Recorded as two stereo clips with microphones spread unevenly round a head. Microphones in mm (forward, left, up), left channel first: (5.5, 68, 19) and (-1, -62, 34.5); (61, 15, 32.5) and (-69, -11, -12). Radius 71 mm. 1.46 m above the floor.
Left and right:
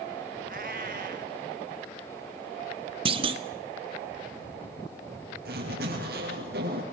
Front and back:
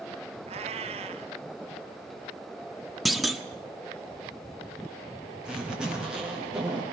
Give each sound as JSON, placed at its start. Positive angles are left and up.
{"t": 0.5, "sound": "a cat meowing", "azimuth_deg": -115, "distance_m": 1.8}
{"t": 3.0, "sound": "a clunk", "azimuth_deg": -60, "distance_m": 1.2}
{"t": 5.5, "sound": "a zipper", "azimuth_deg": -80, "distance_m": 8.0}